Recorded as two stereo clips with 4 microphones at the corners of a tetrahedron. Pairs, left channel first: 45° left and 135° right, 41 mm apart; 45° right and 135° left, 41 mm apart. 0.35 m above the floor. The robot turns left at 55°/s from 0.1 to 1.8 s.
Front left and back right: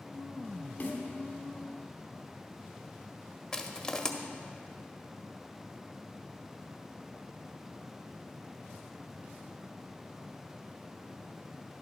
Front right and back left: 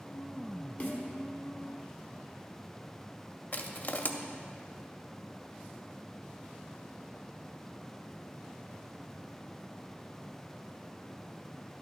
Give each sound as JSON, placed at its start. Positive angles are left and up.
{"t": 0.8, "sound": "a snare drum", "azimuth_deg": 0, "distance_m": 1.3}
{"t": 3.5, "sound": "crushing", "azimuth_deg": -25, "distance_m": 0.6}